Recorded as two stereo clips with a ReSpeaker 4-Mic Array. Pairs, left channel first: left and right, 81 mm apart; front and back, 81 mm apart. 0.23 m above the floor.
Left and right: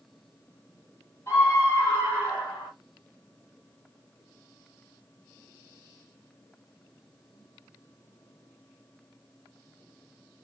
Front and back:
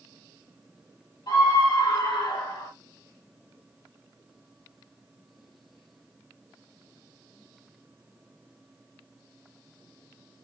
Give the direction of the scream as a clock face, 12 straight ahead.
11 o'clock.